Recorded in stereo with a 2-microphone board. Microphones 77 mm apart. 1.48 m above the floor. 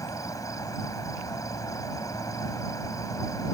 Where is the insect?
45° left (ahead or behind).